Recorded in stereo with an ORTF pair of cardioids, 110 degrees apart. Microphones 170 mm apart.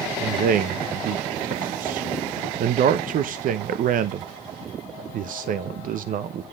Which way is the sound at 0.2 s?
55° right.